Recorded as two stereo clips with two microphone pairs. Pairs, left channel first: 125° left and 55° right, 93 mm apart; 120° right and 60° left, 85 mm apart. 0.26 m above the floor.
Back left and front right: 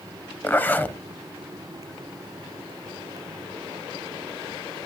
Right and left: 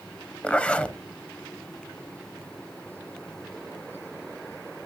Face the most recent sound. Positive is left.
turn(degrees=175)